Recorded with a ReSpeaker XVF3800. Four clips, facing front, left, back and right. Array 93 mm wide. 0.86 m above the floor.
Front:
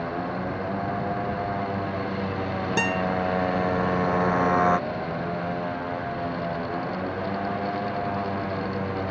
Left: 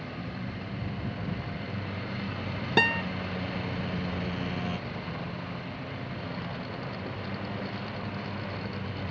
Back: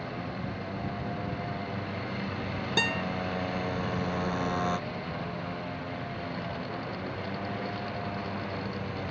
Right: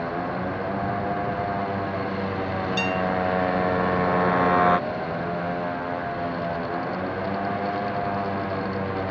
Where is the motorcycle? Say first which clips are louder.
Right 11 dB, front 8 dB; 65° right.